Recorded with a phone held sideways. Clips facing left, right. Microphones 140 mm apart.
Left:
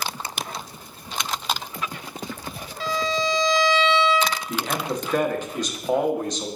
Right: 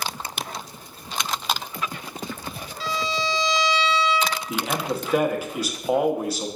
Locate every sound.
2.8 s a violin: 55° left (ahead or behind), 0.9 m
4.5 s a man speaking: 10° right (ahead or behind), 0.8 m